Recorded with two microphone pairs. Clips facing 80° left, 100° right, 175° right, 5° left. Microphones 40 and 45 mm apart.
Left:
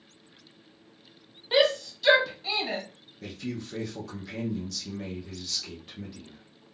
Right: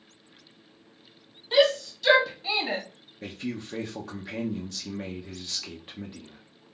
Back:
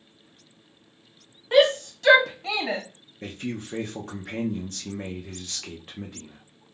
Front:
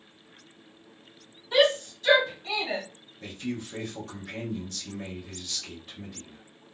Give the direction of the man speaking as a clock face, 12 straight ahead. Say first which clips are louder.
Right 1 dB, back 1 dB; 5 o'clock.